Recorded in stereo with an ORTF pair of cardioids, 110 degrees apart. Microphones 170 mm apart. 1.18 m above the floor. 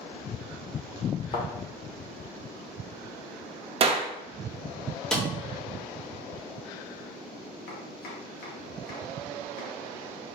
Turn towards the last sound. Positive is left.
turn(degrees=65)